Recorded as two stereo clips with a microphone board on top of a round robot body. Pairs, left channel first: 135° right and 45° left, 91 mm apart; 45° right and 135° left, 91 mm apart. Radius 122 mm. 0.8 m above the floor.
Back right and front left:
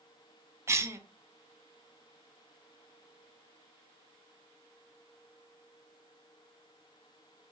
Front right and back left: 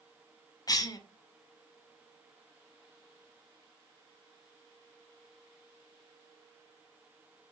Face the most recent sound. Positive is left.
turn(degrees=-10)